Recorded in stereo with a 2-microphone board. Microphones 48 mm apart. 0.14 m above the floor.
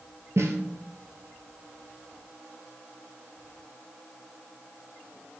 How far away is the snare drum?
About 1.2 m.